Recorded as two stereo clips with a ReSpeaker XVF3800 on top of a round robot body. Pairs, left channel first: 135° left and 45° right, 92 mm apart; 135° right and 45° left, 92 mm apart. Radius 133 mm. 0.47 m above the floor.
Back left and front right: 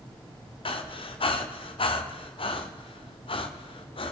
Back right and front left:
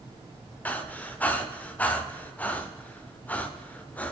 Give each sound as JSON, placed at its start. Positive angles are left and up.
{"t": 0.7, "sound": "breathing", "azimuth_deg": 150, "distance_m": 0.9}